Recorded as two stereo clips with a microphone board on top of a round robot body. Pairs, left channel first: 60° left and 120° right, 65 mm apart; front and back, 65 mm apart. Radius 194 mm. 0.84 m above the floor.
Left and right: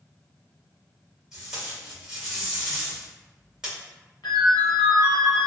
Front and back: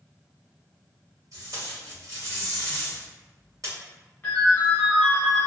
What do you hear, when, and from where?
1.3 s tape being pulled: 160° left, 1.7 m
4.2 s a ringtone: 65° left, 0.8 m